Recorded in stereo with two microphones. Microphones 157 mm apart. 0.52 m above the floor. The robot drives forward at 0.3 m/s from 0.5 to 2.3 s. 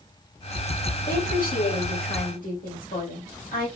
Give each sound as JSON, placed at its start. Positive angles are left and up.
{"t": 1.1, "sound": "a woman speaking", "side_deg": 75, "distance_m": 2.5}